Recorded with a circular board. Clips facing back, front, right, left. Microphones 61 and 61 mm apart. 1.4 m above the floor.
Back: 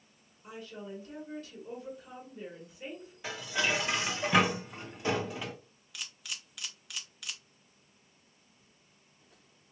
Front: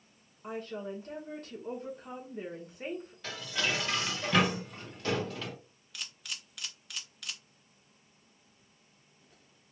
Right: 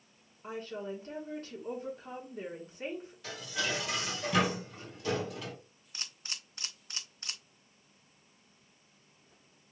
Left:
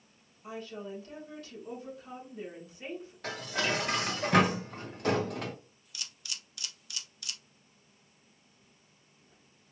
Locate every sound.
0.4 s a woman speaking: 40° right, 2.0 m
3.2 s dishes clattering: 105° left, 1.0 m
5.9 s a camera shutter: 90° right, 0.9 m